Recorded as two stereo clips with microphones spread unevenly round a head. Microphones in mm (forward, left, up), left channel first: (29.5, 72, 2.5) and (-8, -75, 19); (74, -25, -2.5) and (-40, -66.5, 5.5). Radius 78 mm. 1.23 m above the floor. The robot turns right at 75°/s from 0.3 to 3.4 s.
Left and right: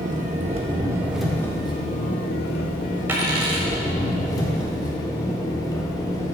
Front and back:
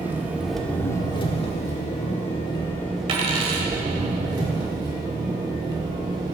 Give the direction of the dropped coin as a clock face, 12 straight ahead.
6 o'clock.